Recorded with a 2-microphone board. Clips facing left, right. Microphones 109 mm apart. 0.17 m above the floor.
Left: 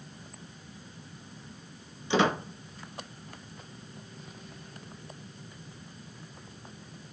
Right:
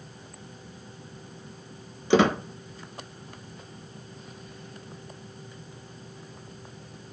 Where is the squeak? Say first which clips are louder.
Right 5 dB; 65° right (ahead or behind), 0.6 m.